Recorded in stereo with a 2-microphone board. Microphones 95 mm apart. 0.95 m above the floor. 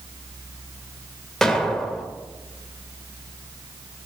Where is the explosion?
5° left (ahead or behind), 0.9 m.